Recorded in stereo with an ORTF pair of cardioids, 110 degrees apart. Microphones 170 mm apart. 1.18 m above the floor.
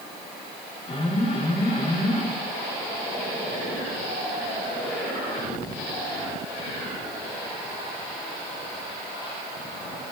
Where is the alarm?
35° left, 8.5 m.